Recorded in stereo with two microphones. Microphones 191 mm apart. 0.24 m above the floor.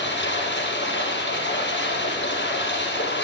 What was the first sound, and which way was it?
Running water, 70° left (ahead or behind).